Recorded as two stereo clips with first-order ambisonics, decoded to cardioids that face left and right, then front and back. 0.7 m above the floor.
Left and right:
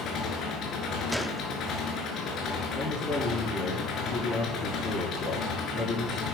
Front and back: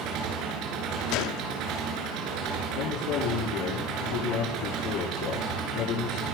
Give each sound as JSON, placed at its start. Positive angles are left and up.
{"t": 0.0, "sound": "an engine running", "azimuth_deg": 145, "distance_m": 7.5}
{"t": 1.1, "sound": "a gunshot", "azimuth_deg": 0, "distance_m": 1.2}
{"t": 2.7, "sound": "a man speaking", "azimuth_deg": 15, "distance_m": 10.0}